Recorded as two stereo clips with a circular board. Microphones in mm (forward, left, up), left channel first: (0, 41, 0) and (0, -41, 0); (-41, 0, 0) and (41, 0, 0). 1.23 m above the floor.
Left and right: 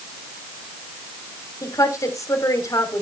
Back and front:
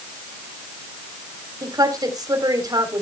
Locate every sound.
1.6 s a woman speaking: 40° left, 3.5 m